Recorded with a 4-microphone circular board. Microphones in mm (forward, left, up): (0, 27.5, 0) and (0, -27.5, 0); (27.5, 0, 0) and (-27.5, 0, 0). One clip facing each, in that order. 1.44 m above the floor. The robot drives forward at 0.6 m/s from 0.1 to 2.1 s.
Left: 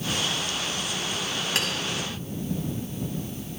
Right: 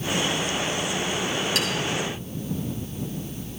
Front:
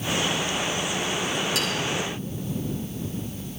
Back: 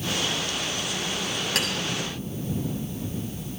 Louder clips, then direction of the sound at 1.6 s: Left 2 dB, even; 140° left.